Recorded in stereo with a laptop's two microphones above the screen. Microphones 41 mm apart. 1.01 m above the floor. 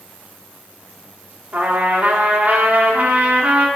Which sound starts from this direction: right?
A trumpet, at 1.5 s.